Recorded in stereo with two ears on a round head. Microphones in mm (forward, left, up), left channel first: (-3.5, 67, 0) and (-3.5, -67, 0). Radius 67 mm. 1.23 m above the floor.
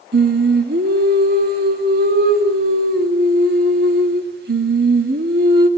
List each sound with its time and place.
0.1 s singing: 70° right (ahead or behind), 2.5 m